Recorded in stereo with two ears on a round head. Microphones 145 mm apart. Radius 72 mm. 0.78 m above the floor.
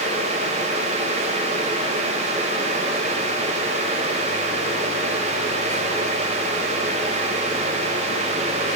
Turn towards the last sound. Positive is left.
No sound to turn to.